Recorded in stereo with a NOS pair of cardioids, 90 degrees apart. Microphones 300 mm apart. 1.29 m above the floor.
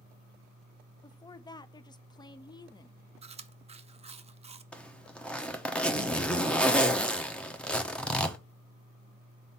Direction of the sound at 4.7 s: 5° left.